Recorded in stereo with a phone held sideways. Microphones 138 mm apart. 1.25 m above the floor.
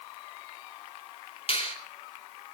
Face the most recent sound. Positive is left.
turn(degrees=45)  # may be behind; listen again after turning